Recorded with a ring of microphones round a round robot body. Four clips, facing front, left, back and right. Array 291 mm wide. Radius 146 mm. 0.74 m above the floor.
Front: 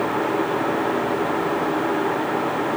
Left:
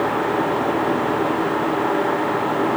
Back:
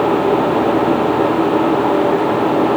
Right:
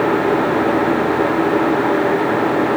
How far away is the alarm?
No alarm in this recording.